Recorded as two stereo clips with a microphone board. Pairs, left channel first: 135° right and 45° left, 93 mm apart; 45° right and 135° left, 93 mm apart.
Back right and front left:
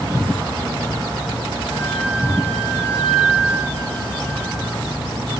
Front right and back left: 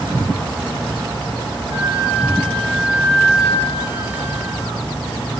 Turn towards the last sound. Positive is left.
turn(degrees=60)